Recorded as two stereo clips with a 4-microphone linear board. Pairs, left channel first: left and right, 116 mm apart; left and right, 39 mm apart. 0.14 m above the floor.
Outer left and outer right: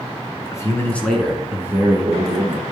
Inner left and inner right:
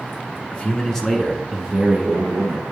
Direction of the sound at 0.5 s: 30° left (ahead or behind).